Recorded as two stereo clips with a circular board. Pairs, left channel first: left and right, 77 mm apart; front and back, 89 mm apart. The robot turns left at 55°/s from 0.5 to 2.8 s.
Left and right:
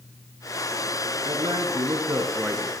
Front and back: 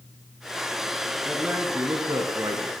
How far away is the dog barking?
No dog barking in this recording.